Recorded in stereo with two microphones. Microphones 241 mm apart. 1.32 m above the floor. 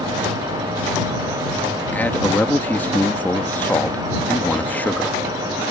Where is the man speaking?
5° left (ahead or behind).